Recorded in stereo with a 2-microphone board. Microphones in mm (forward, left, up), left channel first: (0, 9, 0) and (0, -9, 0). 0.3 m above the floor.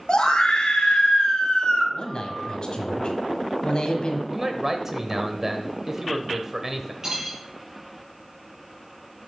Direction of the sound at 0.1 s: 60° left (ahead or behind).